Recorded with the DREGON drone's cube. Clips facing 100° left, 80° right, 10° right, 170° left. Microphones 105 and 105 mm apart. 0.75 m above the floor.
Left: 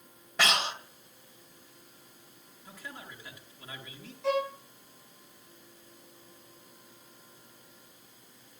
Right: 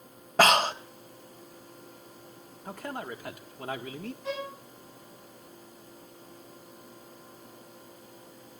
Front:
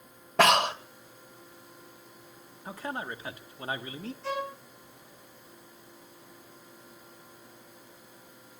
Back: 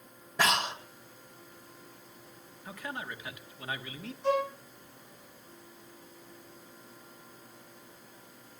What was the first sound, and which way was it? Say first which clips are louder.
Breathing: right 8 dB, front 7 dB; 35° right.